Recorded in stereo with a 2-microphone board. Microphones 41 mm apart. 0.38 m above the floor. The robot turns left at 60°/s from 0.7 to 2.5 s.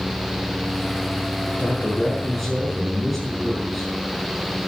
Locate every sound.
1.5 s a man speaking: 60° left, 6 m; by 3.9 s straight ahead, 6 m